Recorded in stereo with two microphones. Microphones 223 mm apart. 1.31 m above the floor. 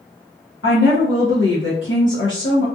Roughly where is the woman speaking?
Left.